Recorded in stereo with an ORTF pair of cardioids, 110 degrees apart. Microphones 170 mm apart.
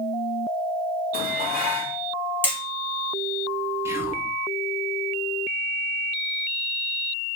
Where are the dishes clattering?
65° left, 1.2 m.